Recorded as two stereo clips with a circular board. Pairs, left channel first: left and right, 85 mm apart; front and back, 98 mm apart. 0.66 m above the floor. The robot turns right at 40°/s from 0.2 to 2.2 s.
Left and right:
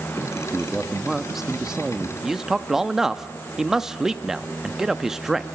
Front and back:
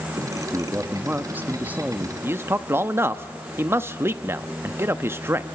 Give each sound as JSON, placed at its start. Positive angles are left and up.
{"t": 0.5, "sound": "a man speaking", "azimuth_deg": 160, "distance_m": 0.7}
{"t": 2.2, "sound": "a man speaking", "azimuth_deg": -170, "distance_m": 0.5}